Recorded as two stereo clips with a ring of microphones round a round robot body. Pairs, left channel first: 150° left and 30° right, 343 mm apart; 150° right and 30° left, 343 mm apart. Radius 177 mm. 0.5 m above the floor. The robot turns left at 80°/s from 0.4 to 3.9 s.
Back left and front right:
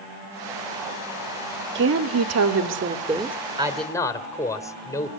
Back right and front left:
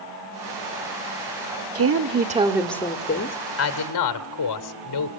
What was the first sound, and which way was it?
A woman speaking, 15° left.